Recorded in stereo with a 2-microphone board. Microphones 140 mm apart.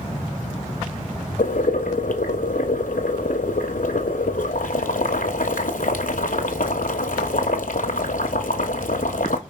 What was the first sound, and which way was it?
Boiling, 80° left.